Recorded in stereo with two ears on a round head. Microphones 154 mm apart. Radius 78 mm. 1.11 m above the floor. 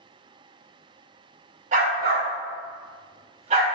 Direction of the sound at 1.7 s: 45° right (ahead or behind).